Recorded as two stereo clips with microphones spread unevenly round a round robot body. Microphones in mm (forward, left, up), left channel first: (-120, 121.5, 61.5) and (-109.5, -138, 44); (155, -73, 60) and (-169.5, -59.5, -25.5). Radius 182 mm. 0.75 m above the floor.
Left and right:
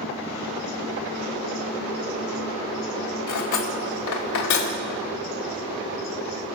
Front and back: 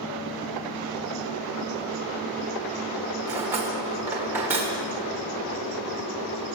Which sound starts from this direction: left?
Cutlery clinking, at 3.3 s.